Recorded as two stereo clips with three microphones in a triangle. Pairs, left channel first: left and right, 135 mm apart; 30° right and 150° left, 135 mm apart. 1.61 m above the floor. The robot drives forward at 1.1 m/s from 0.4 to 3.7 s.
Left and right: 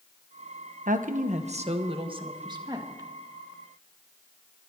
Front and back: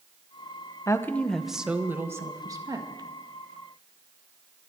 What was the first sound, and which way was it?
A woman speaking, 95° right.